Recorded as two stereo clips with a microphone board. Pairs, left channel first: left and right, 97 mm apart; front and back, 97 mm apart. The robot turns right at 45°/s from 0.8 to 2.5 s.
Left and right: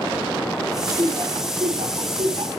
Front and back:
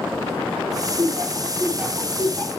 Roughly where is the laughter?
Behind right.